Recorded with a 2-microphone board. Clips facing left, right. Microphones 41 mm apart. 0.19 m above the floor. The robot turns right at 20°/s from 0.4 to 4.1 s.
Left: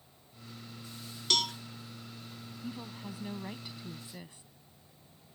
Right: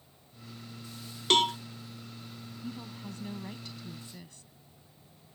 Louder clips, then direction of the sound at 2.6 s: Even; 5° left (ahead or behind).